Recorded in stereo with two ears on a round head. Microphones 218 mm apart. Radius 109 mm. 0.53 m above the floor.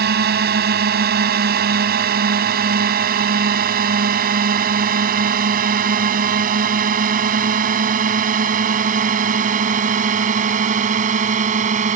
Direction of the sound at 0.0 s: 45° right (ahead or behind).